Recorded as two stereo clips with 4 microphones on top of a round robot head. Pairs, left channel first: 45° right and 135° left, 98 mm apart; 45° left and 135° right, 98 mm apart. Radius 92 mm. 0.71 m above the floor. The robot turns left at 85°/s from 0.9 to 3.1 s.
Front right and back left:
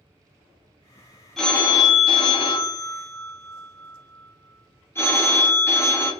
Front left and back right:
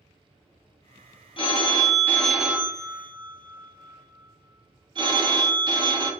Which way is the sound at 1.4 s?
40° left.